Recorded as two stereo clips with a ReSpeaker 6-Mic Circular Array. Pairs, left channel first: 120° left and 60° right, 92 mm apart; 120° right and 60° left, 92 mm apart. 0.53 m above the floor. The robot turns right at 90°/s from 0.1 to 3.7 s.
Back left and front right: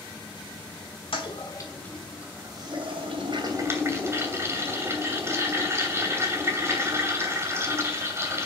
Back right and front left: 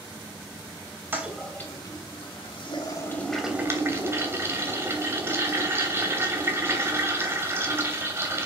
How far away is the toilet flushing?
About 2.5 m.